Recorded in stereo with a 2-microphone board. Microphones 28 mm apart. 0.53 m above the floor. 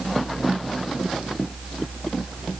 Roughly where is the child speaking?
I don't hear a child speaking.